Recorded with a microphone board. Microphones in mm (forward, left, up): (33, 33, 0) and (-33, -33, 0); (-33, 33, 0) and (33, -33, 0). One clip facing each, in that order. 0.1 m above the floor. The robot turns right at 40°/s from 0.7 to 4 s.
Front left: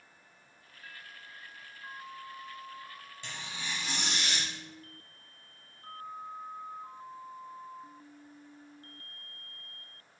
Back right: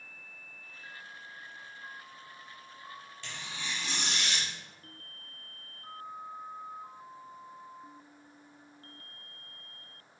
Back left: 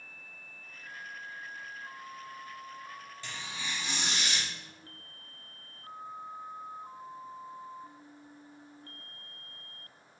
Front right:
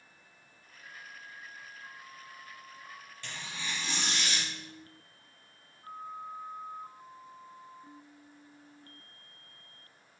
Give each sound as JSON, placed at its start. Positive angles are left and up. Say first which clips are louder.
{"t": 3.2, "sound": "tearing paper", "louder": "even, even", "azimuth_deg": 85, "distance_m": 1.8}